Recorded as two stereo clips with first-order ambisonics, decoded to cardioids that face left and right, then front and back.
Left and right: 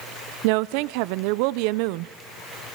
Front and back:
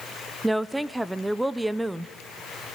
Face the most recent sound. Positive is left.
turn(degrees=-95)